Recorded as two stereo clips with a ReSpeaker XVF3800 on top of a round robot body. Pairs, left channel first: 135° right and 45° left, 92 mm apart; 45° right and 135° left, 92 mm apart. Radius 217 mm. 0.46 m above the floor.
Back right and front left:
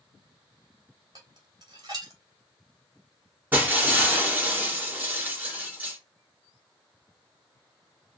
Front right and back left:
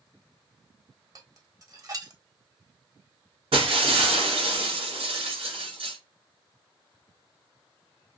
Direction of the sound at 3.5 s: 115° left.